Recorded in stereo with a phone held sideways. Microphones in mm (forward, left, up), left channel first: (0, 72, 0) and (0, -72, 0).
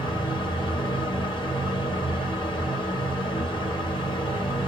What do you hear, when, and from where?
0.0 s a fan: 35° left (ahead or behind), 1.1 m